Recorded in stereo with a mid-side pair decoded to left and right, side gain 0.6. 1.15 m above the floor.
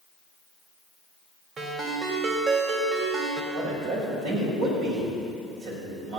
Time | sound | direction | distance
1.6 | a ringtone | 40° right | 3 m
3.5 | a man speaking | 70° right | 6.5 m